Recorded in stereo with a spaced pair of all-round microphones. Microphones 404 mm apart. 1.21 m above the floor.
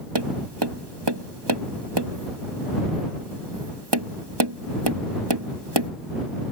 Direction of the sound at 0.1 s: 80° right.